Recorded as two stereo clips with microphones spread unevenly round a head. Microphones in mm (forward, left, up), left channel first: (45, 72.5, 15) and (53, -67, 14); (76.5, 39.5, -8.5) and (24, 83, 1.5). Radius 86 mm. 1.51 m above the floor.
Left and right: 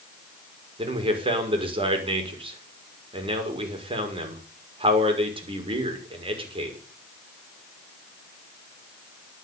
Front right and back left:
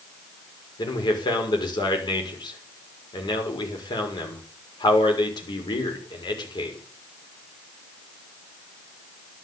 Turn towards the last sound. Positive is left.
turn(degrees=-35)